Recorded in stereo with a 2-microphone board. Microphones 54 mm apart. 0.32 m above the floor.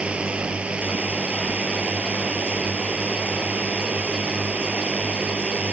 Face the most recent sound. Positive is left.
turn(degrees=-20)  # may be behind; listen again after turning